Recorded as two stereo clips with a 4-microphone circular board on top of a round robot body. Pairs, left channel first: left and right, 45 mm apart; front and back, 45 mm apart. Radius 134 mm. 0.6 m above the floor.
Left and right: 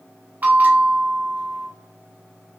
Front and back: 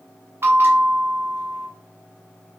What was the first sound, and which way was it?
A bell, 145° right.